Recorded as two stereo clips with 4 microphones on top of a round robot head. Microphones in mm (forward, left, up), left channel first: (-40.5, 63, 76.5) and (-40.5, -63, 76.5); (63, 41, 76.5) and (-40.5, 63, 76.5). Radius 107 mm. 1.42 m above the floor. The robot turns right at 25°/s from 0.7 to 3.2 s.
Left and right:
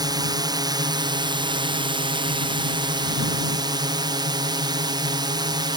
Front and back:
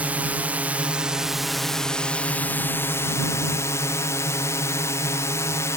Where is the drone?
125° right; by 5.8 s 60° right.